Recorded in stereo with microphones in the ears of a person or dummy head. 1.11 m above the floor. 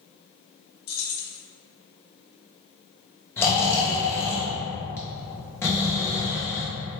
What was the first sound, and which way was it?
Keys jangling, 60° left (ahead or behind).